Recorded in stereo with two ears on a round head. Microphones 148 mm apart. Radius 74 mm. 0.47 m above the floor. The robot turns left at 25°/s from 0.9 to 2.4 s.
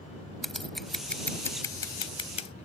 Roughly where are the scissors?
Centre.